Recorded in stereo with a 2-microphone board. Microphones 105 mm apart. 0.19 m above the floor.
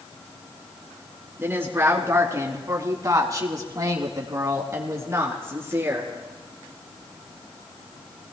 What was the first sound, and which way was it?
A woman speaking, 25° right (ahead or behind).